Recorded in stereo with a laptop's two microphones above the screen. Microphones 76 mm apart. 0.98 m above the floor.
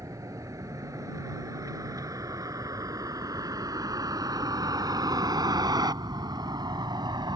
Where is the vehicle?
45° right (ahead or behind); by 7.4 s 75° right (ahead or behind).